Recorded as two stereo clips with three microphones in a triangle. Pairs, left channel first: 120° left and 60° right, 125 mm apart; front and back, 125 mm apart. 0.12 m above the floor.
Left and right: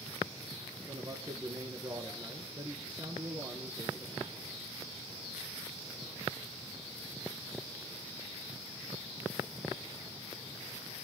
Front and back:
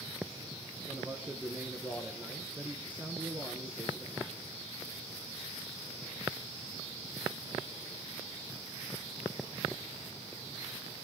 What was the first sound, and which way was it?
A man speaking, 105° right.